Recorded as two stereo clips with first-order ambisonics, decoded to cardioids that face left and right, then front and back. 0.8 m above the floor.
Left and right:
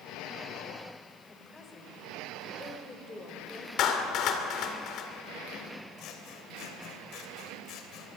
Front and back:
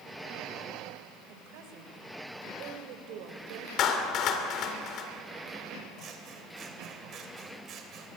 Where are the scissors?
130° left, 3 m.